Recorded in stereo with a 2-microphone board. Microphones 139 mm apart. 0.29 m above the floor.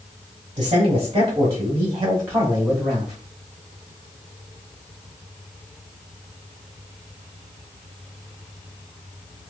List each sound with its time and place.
0.6 s a man speaking: 40° right (ahead or behind), 1.7 m; by 3.2 s centre (ahead or behind), 1.3 m